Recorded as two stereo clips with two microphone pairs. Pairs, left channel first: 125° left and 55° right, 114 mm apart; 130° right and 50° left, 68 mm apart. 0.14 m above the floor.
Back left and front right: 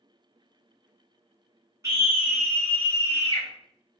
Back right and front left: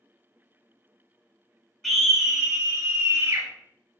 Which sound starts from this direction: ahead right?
A scream, at 1.8 s.